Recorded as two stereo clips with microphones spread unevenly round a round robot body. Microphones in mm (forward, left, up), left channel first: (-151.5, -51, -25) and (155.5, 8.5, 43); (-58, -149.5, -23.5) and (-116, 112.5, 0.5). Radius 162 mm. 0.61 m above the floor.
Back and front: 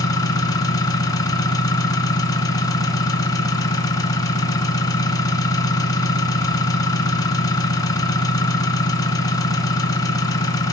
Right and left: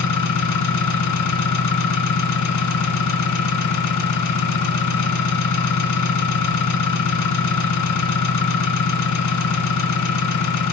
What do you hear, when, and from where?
0.0 s an engine running: 85° right, 1.7 m